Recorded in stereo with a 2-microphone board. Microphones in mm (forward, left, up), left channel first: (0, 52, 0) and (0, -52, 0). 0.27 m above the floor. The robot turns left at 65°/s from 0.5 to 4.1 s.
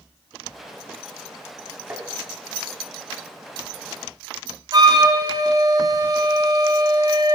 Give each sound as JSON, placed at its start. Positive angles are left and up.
{"t": 1.9, "sound": "tapping", "side_deg": -25, "distance_m": 1.2}
{"t": 4.7, "sound": "a flute", "side_deg": -40, "distance_m": 1.2}